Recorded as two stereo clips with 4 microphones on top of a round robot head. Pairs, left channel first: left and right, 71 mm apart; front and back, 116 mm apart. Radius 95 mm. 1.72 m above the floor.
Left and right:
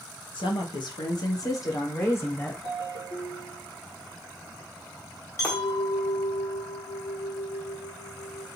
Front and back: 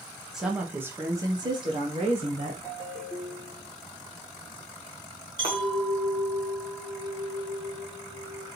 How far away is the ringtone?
About 1.6 m.